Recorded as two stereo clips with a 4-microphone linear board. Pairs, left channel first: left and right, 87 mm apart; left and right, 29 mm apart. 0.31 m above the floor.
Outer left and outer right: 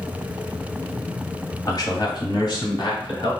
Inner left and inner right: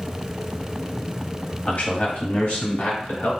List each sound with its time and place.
1.7 s a man speaking: 50° left (ahead or behind), 1.3 m; by 3.3 s 70° left (ahead or behind), 2.5 m